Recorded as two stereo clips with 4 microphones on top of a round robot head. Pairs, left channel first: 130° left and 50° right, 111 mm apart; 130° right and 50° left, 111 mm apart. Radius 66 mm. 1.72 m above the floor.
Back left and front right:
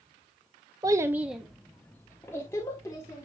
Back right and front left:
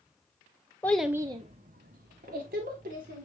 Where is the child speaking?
70° right, 0.6 m; by 3.2 s 60° left, 2 m.